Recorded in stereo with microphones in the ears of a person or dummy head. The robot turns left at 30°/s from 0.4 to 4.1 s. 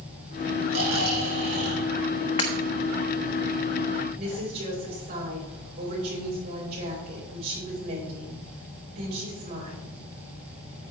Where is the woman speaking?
45° right (ahead or behind), 5 m.